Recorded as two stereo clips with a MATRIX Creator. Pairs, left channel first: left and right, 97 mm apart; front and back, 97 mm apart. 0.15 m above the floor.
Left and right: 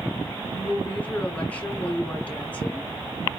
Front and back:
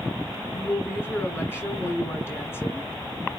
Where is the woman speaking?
30° left, 1.2 m.